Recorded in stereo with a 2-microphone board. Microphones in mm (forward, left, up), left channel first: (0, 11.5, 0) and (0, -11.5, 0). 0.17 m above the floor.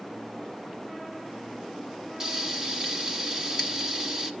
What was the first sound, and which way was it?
Frying, 30° right (ahead or behind).